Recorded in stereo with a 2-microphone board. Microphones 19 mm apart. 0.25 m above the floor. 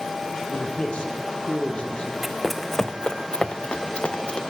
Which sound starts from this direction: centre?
Running footsteps, at 2.2 s.